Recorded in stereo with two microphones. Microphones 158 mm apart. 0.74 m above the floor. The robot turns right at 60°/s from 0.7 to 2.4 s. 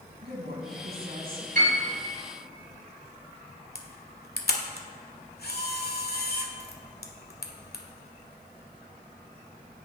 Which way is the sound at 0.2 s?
95° right.